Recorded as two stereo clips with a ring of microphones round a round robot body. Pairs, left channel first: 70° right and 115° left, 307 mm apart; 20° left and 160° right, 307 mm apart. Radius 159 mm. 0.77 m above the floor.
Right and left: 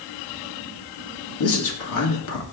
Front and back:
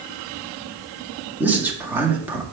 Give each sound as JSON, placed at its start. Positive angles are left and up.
{"t": 1.4, "sound": "a man speaking", "azimuth_deg": -75, "distance_m": 1.9}